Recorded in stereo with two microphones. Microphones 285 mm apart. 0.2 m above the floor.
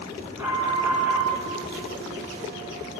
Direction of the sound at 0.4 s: 5° right (ahead or behind).